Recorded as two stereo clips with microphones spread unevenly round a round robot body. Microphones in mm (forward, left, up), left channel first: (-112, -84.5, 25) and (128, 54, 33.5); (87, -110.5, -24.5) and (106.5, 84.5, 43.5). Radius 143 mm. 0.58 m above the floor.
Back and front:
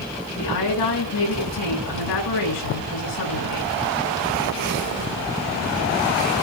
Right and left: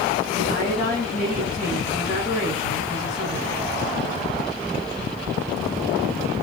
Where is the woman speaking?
160° right, 7.5 m.